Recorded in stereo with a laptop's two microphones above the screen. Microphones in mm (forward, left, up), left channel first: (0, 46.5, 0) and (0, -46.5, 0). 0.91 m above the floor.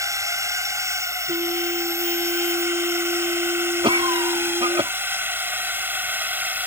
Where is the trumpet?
80° right.